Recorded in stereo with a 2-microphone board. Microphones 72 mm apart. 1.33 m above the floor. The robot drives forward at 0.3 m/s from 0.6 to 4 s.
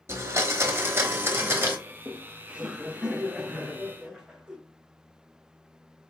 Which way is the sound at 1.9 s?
20° right (ahead or behind).